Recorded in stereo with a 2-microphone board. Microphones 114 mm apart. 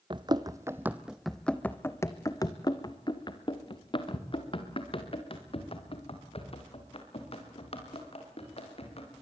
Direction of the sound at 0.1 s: 45° right (ahead or behind).